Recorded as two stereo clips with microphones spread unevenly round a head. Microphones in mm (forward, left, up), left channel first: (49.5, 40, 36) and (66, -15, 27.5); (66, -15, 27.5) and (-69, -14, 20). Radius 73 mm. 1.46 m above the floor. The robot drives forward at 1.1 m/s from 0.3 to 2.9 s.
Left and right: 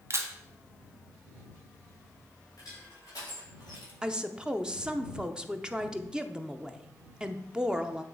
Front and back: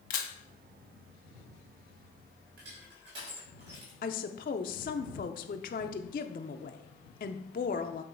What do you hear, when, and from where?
0.1 s a camera shutter: 30° right, 1.1 m
2.6 s crushing: 165° left, 3 m; by 3.9 s 170° left, 3.5 m
4.0 s a woman speaking: 10° left, 0.5 m